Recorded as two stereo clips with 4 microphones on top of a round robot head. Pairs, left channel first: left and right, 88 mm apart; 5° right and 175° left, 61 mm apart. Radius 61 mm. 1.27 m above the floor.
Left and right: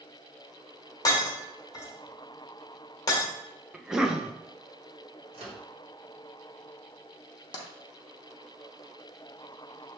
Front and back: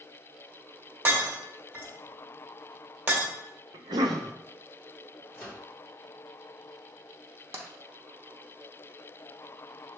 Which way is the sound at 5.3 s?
105° right.